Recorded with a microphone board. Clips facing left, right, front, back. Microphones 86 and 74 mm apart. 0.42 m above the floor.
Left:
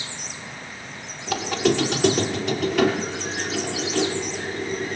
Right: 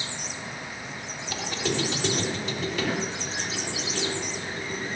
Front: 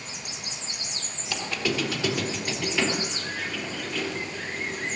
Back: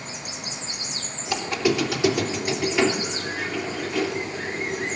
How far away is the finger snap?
No finger snap in this recording.